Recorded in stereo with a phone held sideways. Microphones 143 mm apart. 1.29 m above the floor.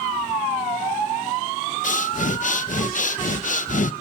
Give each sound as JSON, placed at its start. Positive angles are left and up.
{"t": 1.8, "sound": "breathing", "side_deg": 55, "distance_m": 0.7}